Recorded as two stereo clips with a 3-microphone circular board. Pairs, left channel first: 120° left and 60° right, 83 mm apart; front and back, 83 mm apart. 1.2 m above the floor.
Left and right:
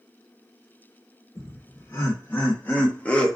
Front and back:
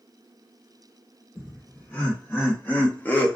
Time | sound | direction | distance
1.4 | laughter | 70° left | 1.3 m